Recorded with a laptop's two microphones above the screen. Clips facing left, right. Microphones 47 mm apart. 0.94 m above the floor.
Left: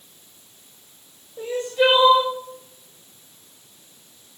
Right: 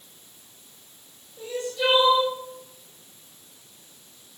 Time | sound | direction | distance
1.4 | crying | 40° left (ahead or behind) | 5.5 m